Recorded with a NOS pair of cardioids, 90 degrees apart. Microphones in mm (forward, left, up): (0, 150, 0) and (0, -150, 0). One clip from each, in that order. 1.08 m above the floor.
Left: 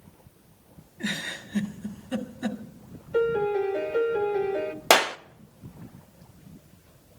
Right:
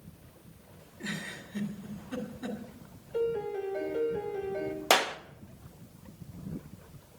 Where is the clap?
25° left, 0.8 m.